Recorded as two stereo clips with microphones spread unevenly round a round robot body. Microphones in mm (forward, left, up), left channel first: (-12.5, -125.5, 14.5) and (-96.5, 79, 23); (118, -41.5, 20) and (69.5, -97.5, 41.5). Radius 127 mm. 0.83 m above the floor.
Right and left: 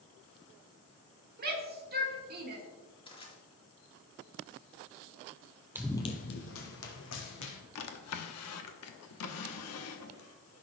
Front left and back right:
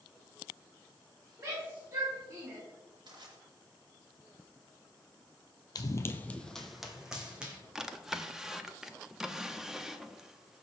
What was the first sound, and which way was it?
A shout, 160° left.